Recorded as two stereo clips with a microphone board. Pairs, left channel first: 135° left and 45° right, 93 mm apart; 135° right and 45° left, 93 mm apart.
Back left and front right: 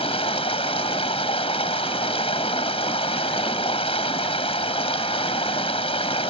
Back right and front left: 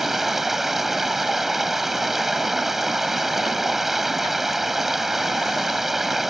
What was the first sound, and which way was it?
Running water, 135° left.